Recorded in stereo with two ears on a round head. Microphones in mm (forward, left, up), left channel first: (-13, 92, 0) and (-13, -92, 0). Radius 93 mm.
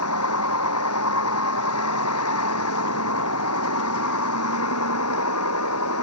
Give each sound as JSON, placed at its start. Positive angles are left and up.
{"t": 0.0, "sound": "a vehicle", "side_deg": 85}